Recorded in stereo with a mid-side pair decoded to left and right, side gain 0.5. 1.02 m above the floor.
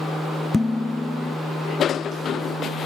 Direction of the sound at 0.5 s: 20° left.